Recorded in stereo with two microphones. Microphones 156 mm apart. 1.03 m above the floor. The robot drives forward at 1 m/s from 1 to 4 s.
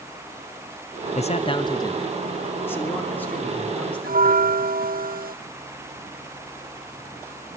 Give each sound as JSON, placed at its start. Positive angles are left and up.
{"t": 1.1, "sound": "a man speaking", "side_deg": 45, "distance_m": 0.6}
{"t": 4.0, "sound": "a bell", "side_deg": -65, "distance_m": 0.7}